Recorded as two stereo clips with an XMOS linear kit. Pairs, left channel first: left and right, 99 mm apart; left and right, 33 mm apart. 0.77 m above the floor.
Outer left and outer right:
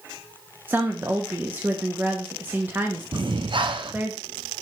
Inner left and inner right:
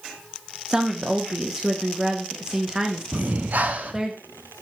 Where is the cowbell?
I don't hear a cowbell.